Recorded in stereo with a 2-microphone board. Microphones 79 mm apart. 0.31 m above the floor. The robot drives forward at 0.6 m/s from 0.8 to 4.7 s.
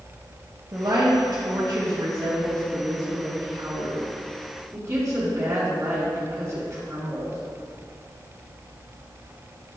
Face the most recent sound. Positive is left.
turn(degrees=-35)  # may be behind; listen again after turning